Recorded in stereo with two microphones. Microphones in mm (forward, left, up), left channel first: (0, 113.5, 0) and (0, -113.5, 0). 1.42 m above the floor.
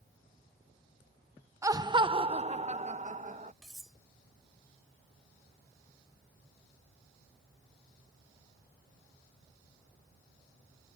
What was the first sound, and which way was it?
Laughter, 15° right (ahead or behind).